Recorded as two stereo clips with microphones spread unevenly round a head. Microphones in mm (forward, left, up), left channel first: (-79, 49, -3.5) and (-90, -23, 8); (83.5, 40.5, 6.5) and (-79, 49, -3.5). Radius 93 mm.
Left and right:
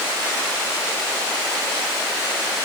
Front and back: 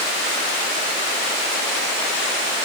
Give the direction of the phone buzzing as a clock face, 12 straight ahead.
I don't hear a phone buzzing.